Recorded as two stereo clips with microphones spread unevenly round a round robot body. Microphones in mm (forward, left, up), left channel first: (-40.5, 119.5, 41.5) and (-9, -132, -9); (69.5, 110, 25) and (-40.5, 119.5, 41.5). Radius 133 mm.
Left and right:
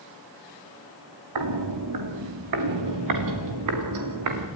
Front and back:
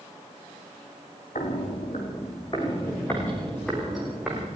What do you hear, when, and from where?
1.4 s footsteps: 65° right, 3.5 m; by 4.5 s 100° right, 5.5 m